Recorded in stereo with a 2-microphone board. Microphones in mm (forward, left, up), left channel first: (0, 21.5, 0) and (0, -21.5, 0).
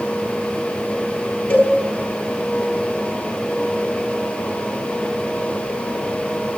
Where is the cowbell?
50° left (ahead or behind), 9.5 m.